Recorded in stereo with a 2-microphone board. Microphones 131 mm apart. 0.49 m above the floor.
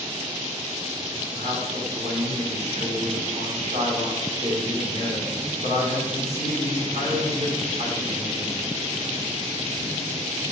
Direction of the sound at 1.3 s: 65° right (ahead or behind).